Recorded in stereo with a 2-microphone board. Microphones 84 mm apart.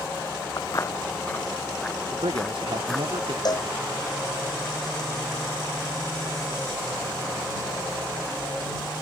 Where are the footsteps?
55° left (ahead or behind); by 3.1 s 5° left (ahead or behind).